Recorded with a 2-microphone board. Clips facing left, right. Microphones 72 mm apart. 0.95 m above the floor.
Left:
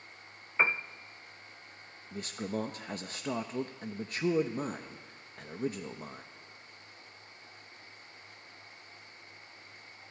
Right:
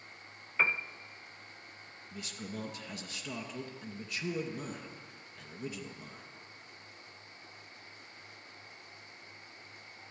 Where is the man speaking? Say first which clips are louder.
Left 7 dB; 40° left (ahead or behind), 0.9 m.